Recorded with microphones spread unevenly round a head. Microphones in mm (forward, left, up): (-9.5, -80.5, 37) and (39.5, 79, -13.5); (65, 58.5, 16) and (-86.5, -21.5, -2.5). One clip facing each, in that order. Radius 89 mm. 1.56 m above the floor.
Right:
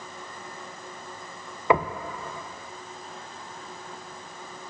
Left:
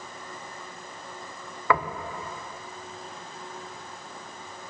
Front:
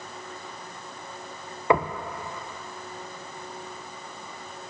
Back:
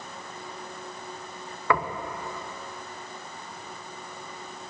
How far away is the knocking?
About 0.6 m.